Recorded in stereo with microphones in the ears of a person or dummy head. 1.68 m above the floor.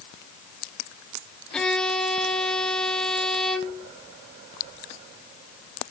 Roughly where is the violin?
Centre.